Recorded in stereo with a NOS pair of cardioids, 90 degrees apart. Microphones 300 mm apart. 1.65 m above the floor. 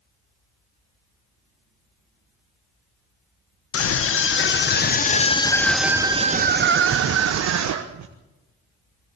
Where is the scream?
50° left, 1.8 m; by 8.1 s 70° right, 1.7 m.